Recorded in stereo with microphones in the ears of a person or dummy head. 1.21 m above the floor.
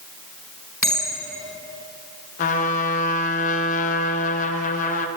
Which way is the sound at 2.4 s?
40° left (ahead or behind).